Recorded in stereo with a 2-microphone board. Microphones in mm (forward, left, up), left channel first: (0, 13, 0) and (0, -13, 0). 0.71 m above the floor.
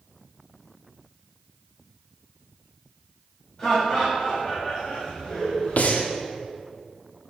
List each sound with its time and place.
3.6 s laughter: 30° left (ahead or behind), 2.5 m; by 5.8 s 60° left (ahead or behind), 2 m
5.8 s breathing: 70° left (ahead or behind), 0.7 m